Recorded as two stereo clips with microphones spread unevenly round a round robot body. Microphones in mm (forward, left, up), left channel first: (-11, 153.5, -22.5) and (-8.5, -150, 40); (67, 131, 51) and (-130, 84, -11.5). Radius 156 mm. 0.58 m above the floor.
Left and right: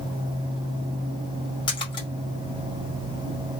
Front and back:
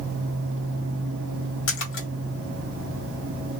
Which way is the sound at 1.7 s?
25° left.